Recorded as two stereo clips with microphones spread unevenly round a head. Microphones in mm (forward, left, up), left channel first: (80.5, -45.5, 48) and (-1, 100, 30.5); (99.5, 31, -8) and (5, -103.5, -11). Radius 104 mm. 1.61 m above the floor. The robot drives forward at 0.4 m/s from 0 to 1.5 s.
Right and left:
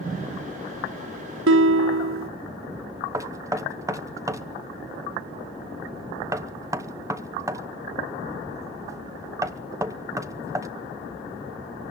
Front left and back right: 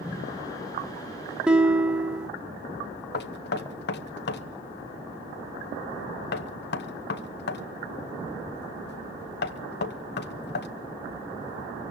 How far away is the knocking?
About 1.0 m.